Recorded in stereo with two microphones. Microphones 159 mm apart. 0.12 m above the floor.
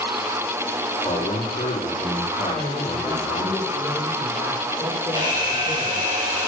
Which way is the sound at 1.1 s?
45° left (ahead or behind).